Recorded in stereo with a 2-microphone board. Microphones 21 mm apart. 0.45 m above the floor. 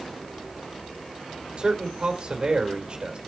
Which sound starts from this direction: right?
A man speaking, at 1.6 s.